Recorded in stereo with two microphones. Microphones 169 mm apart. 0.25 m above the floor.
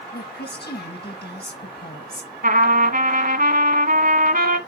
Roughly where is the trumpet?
Right.